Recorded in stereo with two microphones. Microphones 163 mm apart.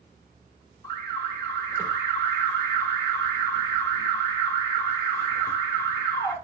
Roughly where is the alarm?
Centre.